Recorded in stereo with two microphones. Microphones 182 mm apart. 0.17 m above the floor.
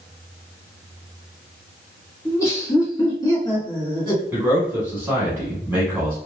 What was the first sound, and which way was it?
Laughter, 15° left (ahead or behind).